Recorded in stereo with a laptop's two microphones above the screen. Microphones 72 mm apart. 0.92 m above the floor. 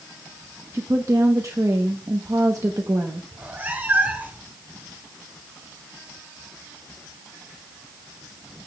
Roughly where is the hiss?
I don't hear a hiss.